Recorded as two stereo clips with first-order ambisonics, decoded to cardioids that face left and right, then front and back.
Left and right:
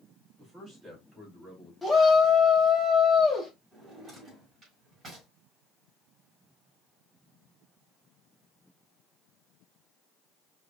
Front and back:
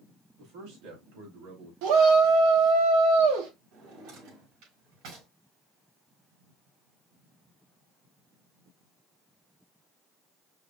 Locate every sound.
0.4 s a man speaking: 170° right, 3 m
1.8 s a shout: 175° left, 1.7 m
3.7 s a drawer: 160° right, 4 m